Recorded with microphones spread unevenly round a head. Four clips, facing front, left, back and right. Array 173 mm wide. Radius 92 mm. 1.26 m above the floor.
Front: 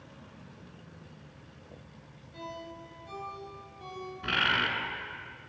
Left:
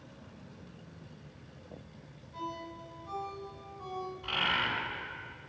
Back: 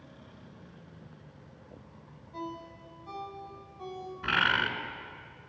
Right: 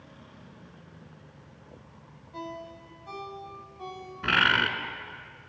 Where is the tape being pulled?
No tape being pulled in this recording.